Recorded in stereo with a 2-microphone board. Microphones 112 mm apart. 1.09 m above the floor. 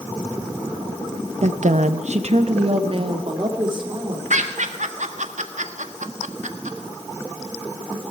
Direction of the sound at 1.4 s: 70° right (ahead or behind).